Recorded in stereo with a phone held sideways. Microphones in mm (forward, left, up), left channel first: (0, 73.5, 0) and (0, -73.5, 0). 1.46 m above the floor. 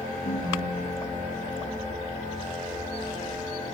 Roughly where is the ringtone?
Left.